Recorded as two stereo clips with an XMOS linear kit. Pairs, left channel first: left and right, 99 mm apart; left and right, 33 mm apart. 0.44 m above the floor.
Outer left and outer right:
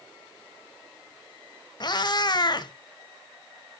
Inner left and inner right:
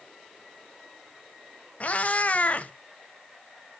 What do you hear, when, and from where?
1.8 s a cat meowing: 45° left (ahead or behind), 0.7 m